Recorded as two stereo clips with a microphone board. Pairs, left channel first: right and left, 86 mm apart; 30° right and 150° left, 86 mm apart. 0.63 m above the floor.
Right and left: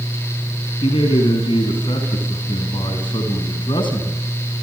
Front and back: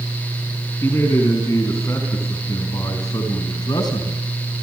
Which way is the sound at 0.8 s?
90° right.